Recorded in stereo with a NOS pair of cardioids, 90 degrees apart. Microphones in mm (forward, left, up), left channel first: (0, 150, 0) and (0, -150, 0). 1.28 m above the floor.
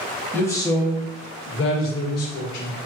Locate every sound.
0.3 s a man speaking: 5° left, 1.3 m; by 2.8 s 70° left, 1.5 m